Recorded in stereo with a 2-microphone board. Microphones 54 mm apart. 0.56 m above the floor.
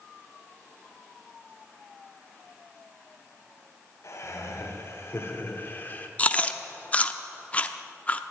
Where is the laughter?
60° left (ahead or behind), 2 m; by 6.1 s 30° left (ahead or behind), 1.7 m.